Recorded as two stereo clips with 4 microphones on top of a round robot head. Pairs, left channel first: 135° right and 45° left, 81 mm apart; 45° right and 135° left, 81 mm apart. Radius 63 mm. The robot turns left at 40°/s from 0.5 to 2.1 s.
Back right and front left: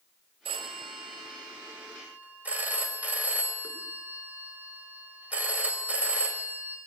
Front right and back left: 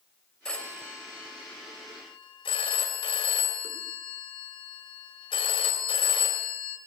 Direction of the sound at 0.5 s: 40° left.